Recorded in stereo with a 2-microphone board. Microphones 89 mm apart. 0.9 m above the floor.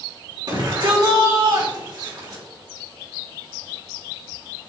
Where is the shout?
60° right (ahead or behind), 3 m.